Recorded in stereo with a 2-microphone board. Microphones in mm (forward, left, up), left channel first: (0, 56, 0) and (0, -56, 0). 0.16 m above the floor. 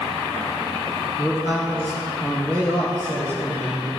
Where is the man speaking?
15° right (ahead or behind), 1.5 m; by 3.9 s 30° right (ahead or behind), 4 m.